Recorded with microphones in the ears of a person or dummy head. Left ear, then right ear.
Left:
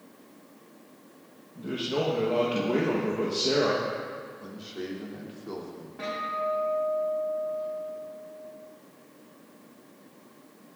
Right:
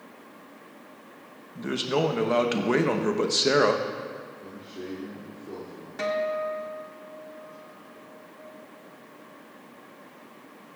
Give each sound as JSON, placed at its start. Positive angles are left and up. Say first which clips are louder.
{"t": 1.6, "sound": "a man speaking", "louder": "right 3 dB", "side_deg": -60, "distance_m": 0.9}
{"t": 4.4, "sound": "a man speaking", "louder": "left 1 dB", "side_deg": 90, "distance_m": 2.5}
{"t": 6.0, "sound": "a guitar", "louder": "right 3 dB", "side_deg": -75, "distance_m": 1.7}